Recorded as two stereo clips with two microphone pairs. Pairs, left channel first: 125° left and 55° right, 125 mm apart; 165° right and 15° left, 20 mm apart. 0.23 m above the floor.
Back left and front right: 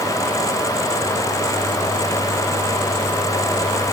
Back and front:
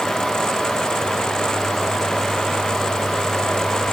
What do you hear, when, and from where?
Only background noise.